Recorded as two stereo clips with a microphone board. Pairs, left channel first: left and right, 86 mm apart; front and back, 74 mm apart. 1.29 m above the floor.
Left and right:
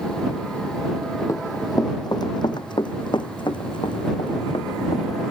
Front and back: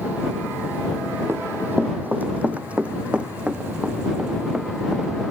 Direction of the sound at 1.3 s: 130° left.